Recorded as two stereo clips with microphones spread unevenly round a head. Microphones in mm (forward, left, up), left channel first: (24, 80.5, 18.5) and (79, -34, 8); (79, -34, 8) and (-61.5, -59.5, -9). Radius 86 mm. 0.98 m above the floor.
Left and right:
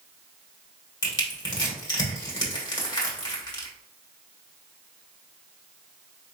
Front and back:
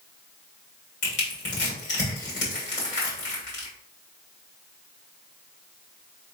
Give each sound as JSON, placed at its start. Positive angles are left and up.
{"t": 1.0, "sound": "crushing", "azimuth_deg": 60, "distance_m": 2.0}